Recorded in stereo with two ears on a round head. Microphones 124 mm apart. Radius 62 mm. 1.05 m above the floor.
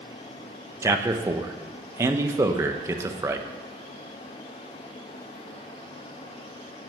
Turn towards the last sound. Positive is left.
turn(degrees=-20)  # may be behind; listen again after turning